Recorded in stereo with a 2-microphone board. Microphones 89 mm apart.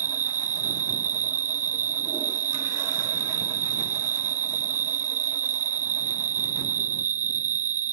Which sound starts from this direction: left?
An insect, at 0.0 s.